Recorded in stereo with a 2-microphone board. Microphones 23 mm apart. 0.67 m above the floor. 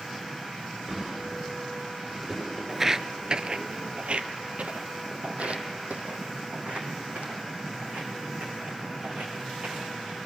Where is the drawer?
20° right (ahead or behind), 5.5 m.